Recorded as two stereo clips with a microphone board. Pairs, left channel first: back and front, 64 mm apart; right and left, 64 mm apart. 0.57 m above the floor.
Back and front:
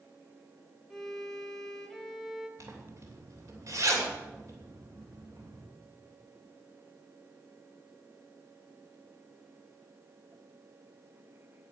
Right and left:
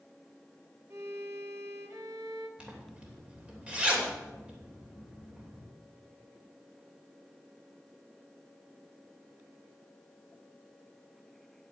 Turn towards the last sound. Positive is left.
turn(degrees=20)